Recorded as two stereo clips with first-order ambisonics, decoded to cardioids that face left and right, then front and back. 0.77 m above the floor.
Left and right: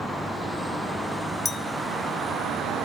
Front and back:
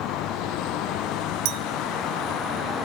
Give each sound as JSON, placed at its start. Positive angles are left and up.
{"t": 1.4, "sound": "a clink", "azimuth_deg": 165, "distance_m": 0.8}